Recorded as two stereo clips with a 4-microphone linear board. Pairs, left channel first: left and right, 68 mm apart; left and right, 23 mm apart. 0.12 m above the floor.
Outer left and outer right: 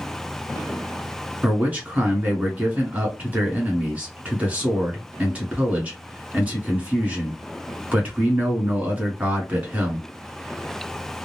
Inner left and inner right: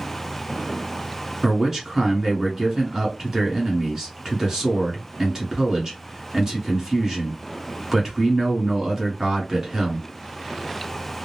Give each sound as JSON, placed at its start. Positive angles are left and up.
{"t": 1.4, "sound": "a man speaking", "side_deg": -20, "distance_m": 1.3}